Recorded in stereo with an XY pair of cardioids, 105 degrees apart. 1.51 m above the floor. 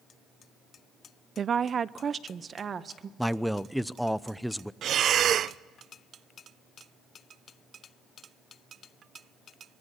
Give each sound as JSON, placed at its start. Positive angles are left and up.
{"t": 1.4, "sound": "a woman speaking", "azimuth_deg": -45, "distance_m": 0.5}
{"t": 3.2, "sound": "a man speaking", "azimuth_deg": 0, "distance_m": 0.8}
{"t": 4.8, "sound": "breathing", "azimuth_deg": -60, "distance_m": 0.6}